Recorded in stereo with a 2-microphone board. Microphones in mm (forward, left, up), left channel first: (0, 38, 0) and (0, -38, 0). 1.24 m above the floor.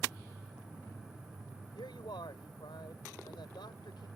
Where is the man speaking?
85° left.